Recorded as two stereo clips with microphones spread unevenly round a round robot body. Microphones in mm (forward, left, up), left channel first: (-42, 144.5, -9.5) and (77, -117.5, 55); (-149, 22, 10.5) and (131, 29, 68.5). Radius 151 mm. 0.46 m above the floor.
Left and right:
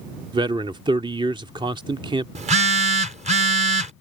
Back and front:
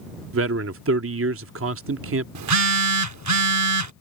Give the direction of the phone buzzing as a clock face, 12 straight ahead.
12 o'clock.